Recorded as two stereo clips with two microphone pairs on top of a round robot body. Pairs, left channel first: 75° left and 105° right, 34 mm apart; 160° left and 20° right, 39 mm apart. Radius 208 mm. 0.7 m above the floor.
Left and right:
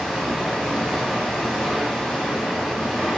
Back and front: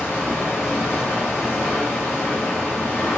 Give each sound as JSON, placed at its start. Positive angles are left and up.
{"t": 0.0, "sound": "running water", "azimuth_deg": 150, "distance_m": 1.4}